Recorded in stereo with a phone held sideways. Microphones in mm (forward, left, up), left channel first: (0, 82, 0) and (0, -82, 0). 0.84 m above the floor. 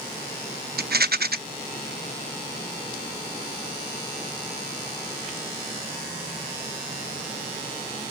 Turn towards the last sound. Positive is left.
turn(degrees=-70)  # may be behind; listen again after turning